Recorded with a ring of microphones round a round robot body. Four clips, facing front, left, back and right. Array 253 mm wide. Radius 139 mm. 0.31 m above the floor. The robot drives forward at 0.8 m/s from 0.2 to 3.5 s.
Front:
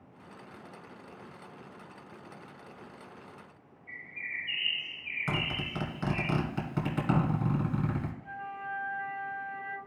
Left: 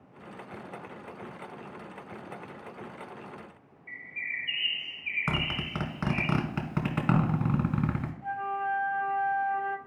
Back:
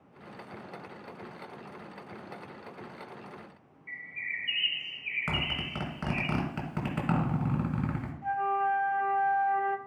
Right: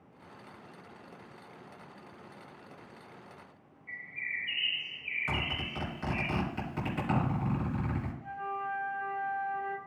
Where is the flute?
155° left, 0.6 m.